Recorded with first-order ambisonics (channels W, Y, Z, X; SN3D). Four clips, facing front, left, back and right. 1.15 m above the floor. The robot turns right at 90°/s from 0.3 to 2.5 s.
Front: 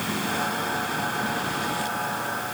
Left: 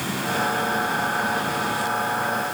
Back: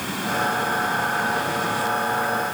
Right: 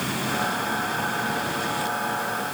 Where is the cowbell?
No cowbell in this recording.